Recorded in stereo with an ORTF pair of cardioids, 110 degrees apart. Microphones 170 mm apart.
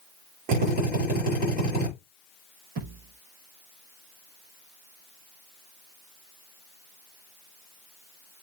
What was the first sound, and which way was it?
A drill, 65° right.